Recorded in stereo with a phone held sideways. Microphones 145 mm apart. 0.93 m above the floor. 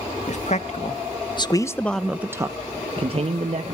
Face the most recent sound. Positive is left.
turn(degrees=-50)  # may be behind; listen again after turning